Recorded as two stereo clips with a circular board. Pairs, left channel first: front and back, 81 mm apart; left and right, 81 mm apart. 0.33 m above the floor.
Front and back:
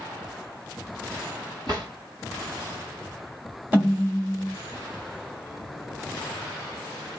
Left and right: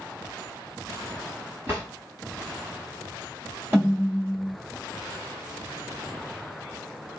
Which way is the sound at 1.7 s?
150° right.